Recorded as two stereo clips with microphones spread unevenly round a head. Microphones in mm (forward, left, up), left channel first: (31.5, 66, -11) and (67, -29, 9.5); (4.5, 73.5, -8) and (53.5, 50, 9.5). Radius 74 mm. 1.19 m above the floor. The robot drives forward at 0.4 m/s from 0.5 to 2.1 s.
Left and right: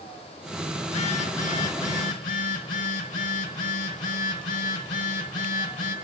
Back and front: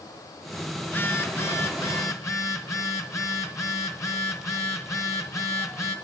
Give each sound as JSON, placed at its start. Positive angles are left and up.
{"t": 0.8, "sound": "a phone buzzing", "azimuth_deg": 95, "distance_m": 0.8}